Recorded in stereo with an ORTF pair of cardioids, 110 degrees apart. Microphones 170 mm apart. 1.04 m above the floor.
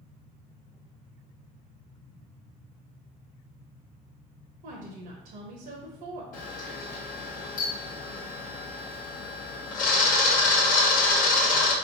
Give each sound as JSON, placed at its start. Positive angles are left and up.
{"t": 4.6, "sound": "a woman speaking", "azimuth_deg": -65, "distance_m": 0.9}
{"t": 6.3, "sound": "a camera shutter", "azimuth_deg": 65, "distance_m": 1.1}